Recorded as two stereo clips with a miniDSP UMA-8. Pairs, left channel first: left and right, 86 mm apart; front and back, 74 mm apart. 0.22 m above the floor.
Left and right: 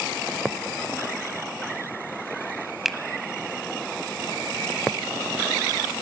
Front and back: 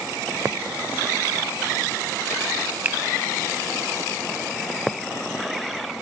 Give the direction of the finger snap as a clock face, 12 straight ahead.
6 o'clock.